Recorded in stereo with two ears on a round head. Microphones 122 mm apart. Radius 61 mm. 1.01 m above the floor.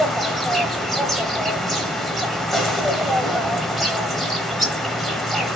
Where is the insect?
Centre (ahead or behind), 0.9 m.